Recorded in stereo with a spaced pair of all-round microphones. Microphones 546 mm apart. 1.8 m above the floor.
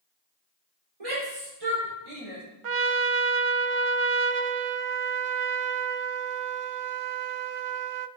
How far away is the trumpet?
About 0.6 m.